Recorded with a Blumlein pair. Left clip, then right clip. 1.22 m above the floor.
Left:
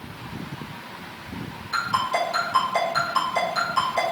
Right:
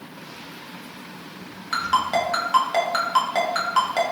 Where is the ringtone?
35° right, 1.0 m.